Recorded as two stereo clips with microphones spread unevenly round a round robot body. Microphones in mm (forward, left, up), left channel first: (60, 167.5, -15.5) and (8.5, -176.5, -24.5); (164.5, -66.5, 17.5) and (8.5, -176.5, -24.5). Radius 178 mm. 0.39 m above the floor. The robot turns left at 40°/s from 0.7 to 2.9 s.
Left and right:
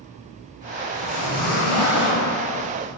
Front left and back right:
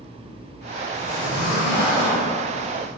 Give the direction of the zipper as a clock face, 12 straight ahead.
4 o'clock.